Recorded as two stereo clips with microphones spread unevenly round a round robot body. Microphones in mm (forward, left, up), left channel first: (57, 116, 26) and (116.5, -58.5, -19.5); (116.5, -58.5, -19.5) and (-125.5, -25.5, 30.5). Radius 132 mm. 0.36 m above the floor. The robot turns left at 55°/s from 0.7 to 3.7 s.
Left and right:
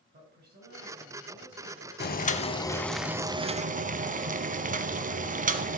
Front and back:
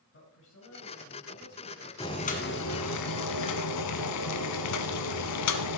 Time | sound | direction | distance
0.1 | a woman speaking | 45° right | 5 m
2.0 | boiling | 70° left | 1.0 m